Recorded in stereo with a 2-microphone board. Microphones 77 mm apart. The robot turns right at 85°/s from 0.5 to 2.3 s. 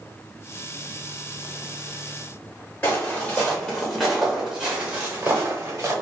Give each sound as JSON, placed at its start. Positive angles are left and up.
{"t": 2.8, "sound": "footsteps", "side_deg": 25, "distance_m": 1.8}